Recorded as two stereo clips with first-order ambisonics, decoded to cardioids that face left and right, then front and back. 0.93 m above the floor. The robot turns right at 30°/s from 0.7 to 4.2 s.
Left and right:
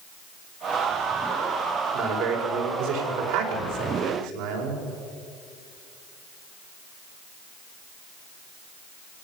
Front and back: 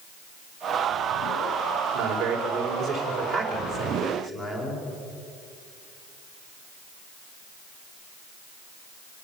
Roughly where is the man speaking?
Behind right.